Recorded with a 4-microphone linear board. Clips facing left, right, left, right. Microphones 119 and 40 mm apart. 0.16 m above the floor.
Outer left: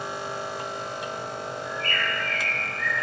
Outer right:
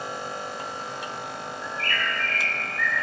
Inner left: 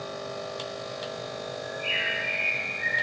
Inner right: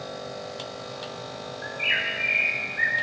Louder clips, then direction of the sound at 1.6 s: Outer right 2 dB, inner right 3 dB; 80° right.